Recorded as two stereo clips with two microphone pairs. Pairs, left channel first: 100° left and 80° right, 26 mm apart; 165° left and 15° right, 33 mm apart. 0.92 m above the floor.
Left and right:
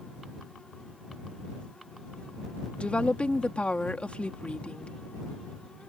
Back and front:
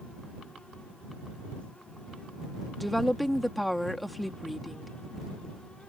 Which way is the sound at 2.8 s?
75° left.